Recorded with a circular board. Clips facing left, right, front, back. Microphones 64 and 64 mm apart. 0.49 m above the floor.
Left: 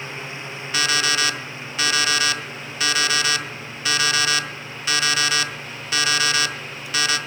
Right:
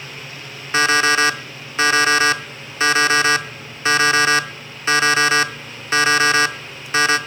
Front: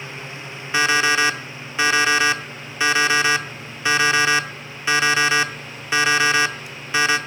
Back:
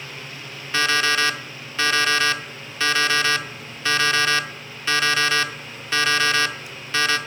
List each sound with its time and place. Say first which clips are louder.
0.7 s an alarm clock: right 7 dB, front 3 dB; 60° right, 0.5 m